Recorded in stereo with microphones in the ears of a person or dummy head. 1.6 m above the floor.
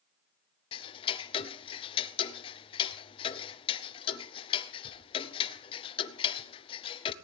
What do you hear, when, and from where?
0.7 s ticking: 25° left (ahead or behind), 0.7 m